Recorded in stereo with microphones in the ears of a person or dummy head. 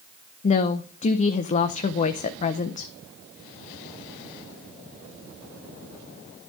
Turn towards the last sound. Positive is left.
turn(degrees=35)  # may be behind; listen again after turning